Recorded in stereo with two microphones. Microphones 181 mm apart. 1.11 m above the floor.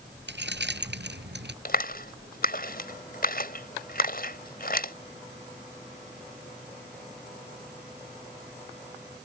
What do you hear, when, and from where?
0.3 s keys jangling: 75° right (ahead or behind)
1.6 s a clap: 55° left (ahead or behind)